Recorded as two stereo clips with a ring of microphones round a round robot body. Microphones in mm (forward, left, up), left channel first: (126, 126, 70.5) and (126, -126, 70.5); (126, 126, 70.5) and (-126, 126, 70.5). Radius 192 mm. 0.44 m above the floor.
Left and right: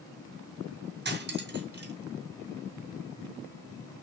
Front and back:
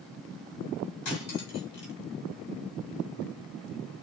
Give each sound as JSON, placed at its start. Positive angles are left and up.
{"t": 1.1, "sound": "cutlery clinking", "azimuth_deg": -35, "distance_m": 2.5}